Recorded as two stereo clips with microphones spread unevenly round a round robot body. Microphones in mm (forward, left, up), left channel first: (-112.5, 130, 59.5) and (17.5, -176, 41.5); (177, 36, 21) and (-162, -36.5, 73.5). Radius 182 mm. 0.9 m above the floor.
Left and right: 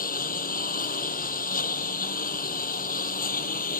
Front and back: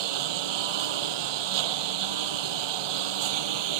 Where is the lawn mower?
Straight behind.